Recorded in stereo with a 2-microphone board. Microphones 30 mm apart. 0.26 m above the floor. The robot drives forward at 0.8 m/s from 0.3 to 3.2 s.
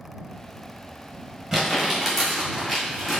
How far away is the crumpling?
About 1.5 m.